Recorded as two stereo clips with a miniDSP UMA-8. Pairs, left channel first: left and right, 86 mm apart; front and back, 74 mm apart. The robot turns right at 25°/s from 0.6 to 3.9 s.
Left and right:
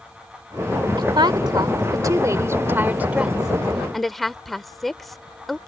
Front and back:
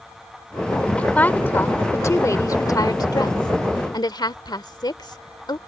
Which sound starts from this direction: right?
A woman speaking, at 1.0 s.